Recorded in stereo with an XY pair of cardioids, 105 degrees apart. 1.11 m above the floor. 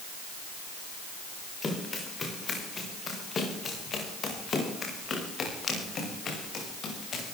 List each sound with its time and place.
1.6 s running footsteps: 30° left, 8 m; by 7.4 s 50° left, 10.5 m